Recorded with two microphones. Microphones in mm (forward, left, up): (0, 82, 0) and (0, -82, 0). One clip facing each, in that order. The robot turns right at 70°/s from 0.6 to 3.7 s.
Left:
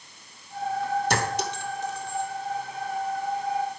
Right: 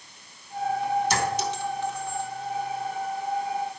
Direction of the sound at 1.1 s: 55° left (ahead or behind).